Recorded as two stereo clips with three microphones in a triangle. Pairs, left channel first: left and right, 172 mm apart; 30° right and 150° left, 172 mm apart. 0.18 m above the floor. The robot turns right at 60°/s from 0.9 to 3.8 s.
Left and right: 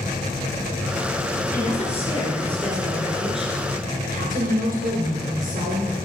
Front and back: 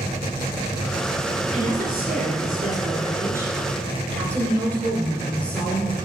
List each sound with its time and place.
1.5 s a woman speaking: 110° left, 3 m; by 5.9 s 110° right, 3 m